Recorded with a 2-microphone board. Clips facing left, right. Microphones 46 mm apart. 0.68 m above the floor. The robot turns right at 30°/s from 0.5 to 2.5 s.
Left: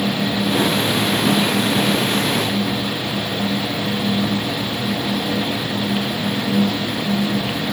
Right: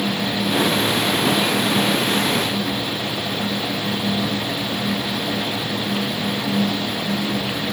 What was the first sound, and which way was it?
Only background noise.